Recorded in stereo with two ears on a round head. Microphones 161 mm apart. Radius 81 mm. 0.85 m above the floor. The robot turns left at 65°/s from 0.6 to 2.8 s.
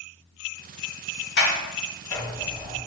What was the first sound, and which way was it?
A sliding door, 60° left (ahead or behind).